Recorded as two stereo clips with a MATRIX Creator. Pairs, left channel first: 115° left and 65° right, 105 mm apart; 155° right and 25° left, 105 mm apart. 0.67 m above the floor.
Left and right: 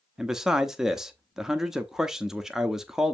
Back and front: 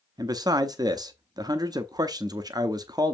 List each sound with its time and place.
0.2 s a man speaking: 15° left, 0.6 m